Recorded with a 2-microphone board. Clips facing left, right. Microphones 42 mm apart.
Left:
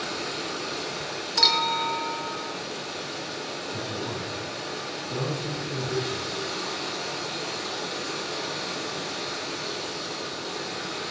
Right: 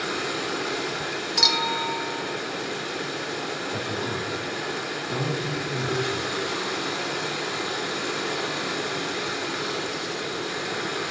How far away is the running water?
About 2 m.